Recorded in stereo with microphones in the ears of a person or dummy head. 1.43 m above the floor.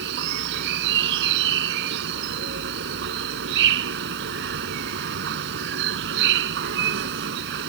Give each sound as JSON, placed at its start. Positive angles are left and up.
{"t": 0.0, "sound": "an insect", "side_deg": -65}